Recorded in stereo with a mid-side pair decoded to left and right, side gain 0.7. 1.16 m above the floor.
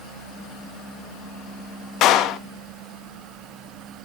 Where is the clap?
55° left, 1.2 m.